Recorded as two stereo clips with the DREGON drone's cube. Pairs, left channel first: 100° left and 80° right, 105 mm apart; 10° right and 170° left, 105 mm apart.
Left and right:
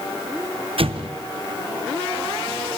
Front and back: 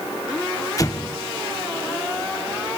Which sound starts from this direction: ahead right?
An explosion, at 0.8 s.